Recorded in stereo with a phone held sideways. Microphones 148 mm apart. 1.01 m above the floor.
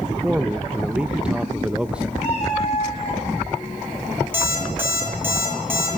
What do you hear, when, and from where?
0.1 s a man speaking: 10° right (ahead or behind), 0.6 m
2.2 s a cat meowing: 40° left (ahead or behind), 10 m
4.3 s an alarm clock: 15° right (ahead or behind), 9.5 m